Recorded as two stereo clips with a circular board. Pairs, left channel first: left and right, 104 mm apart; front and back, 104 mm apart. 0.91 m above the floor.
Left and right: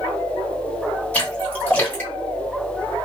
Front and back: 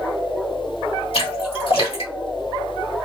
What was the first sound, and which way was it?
A splash, 15° left.